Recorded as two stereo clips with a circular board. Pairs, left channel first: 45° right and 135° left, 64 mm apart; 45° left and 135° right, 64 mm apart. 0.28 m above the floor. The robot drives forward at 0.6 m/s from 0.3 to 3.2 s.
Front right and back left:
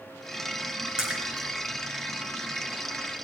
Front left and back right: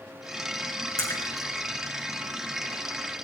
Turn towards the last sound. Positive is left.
turn(degrees=80)